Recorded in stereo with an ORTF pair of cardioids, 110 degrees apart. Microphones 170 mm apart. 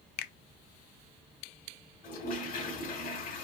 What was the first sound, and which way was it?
A finger snap, 70° left.